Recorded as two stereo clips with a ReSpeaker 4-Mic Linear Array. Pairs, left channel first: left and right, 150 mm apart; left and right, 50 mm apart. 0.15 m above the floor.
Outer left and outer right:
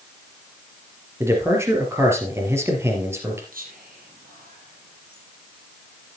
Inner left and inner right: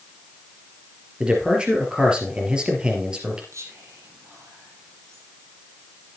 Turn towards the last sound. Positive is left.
turn(degrees=-70)  # may be behind; listen again after turning